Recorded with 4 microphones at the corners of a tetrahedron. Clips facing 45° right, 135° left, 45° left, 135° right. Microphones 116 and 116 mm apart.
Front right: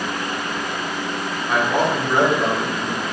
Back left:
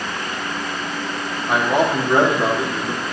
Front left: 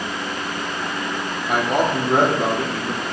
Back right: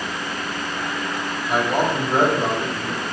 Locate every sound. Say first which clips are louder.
1.5 s a man speaking: back left 2 dB, front left 1 dB; 65° left, 3.5 m